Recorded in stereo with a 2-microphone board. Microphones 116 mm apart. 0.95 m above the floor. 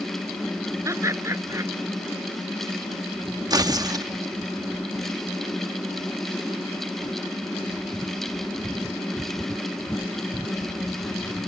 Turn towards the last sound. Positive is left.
turn(degrees=-35)  # may be behind; listen again after turning